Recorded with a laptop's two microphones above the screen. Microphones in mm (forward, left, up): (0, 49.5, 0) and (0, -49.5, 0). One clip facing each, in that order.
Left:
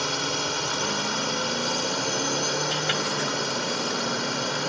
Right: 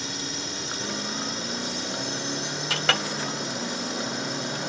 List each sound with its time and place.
0.0 s a drone: 65° left (ahead or behind)
2.7 s a clink: 85° right